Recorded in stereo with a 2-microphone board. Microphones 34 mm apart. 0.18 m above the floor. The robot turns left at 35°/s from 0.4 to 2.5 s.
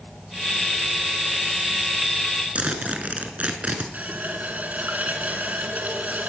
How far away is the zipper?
About 1.3 m.